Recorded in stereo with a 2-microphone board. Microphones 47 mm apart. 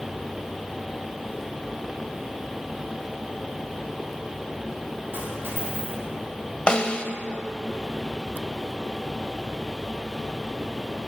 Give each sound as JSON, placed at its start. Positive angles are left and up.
{"t": 5.1, "sound": "a dropped coin", "side_deg": -50, "distance_m": 4.5}
{"t": 6.7, "sound": "a snare drum", "side_deg": 20, "distance_m": 0.6}